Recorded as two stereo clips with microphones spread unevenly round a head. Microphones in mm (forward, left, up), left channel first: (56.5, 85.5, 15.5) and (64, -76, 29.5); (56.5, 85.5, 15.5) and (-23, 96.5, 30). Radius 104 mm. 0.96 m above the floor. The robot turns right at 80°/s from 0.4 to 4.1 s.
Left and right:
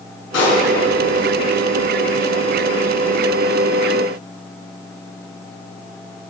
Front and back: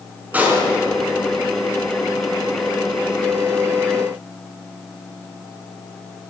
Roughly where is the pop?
Left.